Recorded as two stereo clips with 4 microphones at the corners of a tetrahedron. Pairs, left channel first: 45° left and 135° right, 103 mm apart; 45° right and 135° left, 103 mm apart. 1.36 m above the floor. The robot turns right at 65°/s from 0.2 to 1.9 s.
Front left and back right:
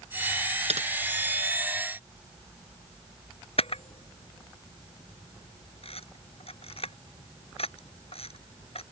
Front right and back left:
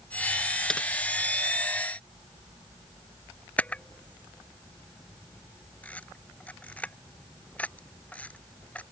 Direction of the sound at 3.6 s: 30° left.